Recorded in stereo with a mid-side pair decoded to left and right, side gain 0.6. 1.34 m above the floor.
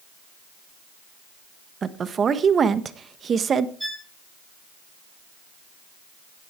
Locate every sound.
1.8 s a woman speaking: 35° right, 1.5 m
3.8 s a violin: straight ahead, 4 m